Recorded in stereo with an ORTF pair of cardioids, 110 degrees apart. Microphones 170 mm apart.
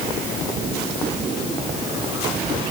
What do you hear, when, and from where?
Only background noise.